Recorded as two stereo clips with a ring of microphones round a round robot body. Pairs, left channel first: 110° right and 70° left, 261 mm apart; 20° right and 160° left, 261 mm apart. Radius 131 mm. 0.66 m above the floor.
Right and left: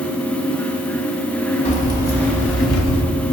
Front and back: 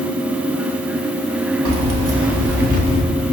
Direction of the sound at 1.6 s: Straight behind.